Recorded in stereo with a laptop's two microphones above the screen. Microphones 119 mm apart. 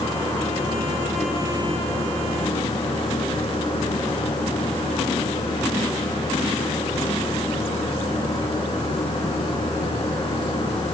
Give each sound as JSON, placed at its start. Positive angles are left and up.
{"t": 0.0, "sound": "a fan", "side_deg": 50, "distance_m": 6.0}